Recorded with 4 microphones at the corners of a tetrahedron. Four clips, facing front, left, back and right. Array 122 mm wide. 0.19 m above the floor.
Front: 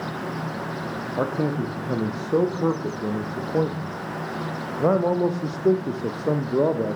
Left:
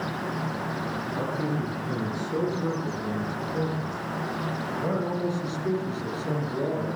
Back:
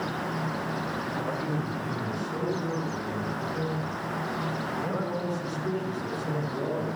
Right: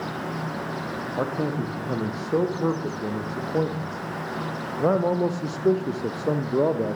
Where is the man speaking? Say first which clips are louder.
Right 4 dB, front 10 dB; 30° right, 8 m; by 7.0 s 40° right, 5 m.